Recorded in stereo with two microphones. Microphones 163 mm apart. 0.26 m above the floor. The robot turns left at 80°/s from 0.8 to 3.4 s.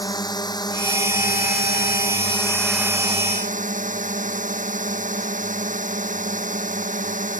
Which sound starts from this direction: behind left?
A drone, at 0.0 s.